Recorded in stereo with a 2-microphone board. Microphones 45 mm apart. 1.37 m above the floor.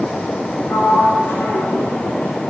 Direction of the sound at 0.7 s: 60° left (ahead or behind).